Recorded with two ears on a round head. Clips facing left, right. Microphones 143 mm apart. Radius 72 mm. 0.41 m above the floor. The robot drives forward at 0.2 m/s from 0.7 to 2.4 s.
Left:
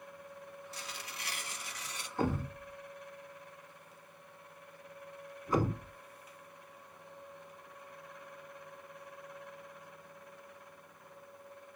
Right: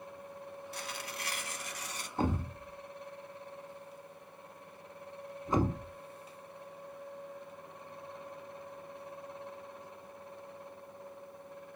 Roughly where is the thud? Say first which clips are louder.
Even; right.